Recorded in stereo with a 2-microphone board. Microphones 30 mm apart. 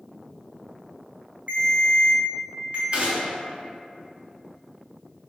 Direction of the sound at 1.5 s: 45° right (ahead or behind).